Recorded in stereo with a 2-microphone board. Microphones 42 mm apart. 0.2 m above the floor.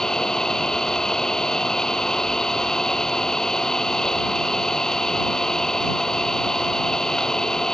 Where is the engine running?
10° left (ahead or behind).